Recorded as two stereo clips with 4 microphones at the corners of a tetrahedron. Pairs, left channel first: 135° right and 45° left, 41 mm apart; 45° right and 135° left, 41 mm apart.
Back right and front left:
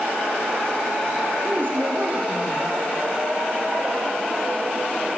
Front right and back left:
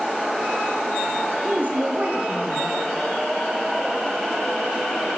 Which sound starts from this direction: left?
A woman speaking, at 1.4 s.